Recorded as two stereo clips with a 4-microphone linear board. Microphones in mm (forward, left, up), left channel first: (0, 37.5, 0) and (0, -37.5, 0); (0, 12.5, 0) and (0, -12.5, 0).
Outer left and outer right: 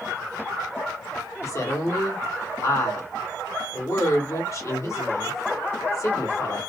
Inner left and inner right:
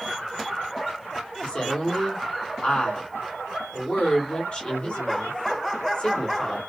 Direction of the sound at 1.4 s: 45° left (ahead or behind).